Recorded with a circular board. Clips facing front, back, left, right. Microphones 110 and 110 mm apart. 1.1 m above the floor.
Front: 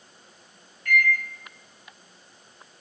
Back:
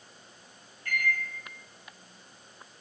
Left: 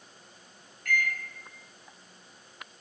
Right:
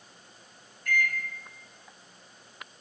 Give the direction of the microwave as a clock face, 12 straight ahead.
8 o'clock.